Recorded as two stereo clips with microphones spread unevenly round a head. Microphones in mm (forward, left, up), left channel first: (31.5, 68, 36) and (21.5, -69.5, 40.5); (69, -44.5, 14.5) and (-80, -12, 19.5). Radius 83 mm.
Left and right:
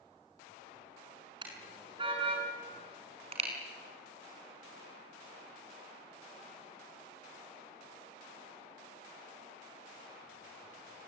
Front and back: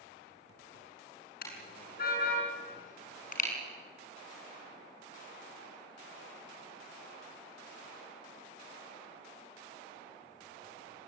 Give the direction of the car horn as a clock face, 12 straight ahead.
1 o'clock.